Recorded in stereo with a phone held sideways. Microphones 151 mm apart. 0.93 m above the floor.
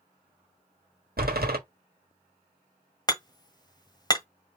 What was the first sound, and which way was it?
A door slam, 75° right (ahead or behind).